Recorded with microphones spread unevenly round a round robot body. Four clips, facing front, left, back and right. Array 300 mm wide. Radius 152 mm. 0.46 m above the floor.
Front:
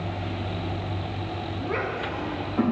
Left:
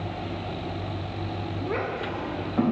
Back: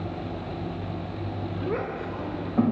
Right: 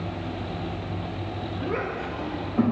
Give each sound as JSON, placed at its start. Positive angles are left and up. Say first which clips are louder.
{"t": 1.7, "sound": "a child speaking", "louder": "left 1 dB, front 1 dB", "azimuth_deg": 180, "distance_m": 1.2}